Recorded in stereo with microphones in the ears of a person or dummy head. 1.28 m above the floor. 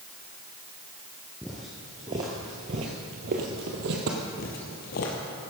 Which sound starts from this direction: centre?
Footsteps, at 1.4 s.